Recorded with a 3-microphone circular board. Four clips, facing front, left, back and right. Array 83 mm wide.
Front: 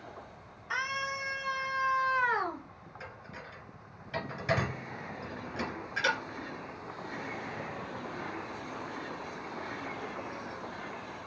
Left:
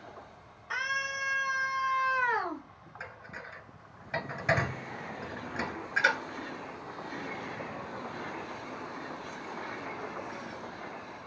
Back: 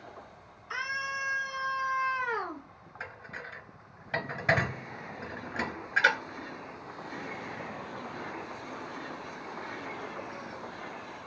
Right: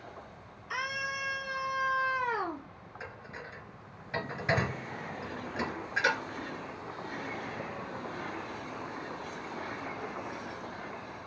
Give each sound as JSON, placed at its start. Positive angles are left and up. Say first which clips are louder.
{"t": 0.7, "sound": "a scream", "louder": "left 2 dB, even", "azimuth_deg": 35, "distance_m": 3.0}
{"t": 3.0, "sound": "dishes clattering", "louder": "even, back 5 dB", "azimuth_deg": 160, "distance_m": 1.3}